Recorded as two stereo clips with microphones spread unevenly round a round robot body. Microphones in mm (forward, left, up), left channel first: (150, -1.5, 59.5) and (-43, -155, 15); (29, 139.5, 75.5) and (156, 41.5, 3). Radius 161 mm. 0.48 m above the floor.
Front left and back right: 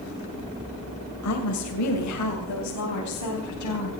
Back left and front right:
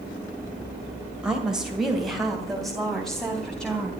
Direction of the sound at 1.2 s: 40° left.